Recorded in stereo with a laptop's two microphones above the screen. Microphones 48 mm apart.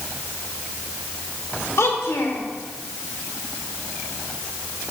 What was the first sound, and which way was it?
A child speaking, 70° left (ahead or behind).